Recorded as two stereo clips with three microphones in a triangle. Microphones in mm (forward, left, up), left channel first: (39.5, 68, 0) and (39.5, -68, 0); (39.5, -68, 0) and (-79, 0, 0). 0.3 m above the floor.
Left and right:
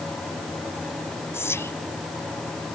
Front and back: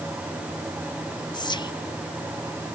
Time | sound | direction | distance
1.3 | whispering | 20° left | ?